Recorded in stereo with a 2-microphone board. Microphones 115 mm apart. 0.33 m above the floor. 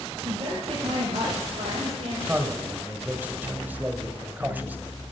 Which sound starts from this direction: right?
A woman speaking, at 0.2 s.